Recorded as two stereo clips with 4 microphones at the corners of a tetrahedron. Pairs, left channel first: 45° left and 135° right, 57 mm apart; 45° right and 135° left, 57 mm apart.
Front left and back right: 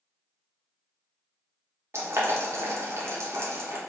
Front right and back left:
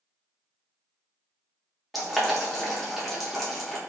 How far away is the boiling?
About 0.7 m.